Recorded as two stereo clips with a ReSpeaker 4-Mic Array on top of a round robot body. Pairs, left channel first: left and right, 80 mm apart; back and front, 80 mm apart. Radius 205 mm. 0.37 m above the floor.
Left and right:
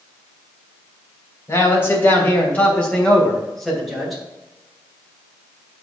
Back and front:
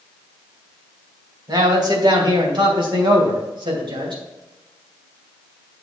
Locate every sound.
1.5 s a man speaking: 35° left, 3 m; by 4.2 s 5° right, 3 m